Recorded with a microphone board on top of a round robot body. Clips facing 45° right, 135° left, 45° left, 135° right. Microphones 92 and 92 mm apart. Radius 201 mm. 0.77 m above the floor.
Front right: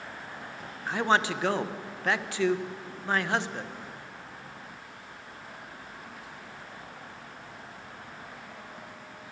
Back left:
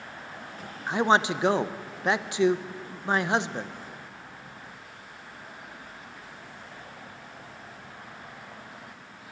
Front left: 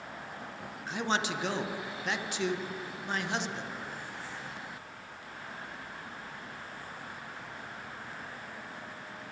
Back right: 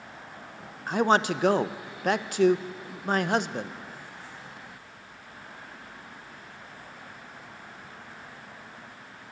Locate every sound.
0.9 s a man speaking: 160° right, 0.6 m